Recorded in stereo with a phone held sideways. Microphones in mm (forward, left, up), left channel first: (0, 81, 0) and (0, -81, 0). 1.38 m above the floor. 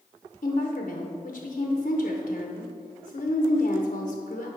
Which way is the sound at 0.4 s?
55° left (ahead or behind).